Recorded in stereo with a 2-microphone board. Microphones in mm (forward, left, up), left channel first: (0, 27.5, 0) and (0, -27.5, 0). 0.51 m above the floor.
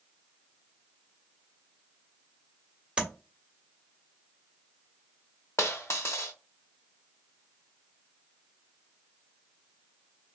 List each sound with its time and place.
3.0 s tapping: 20° right (ahead or behind), 1.2 m
5.6 s a dropped coin: 60° left (ahead or behind), 0.8 m